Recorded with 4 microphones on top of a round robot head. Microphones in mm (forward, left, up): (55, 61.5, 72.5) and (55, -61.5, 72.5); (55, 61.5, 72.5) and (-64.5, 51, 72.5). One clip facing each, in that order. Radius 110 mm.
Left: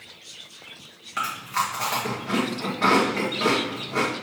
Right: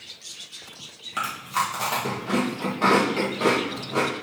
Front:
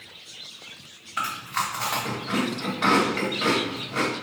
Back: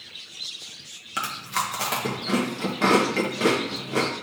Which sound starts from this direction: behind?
Chewing, at 1.2 s.